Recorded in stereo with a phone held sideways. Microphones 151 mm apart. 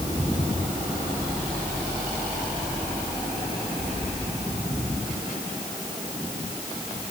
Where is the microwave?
I don't hear a microwave.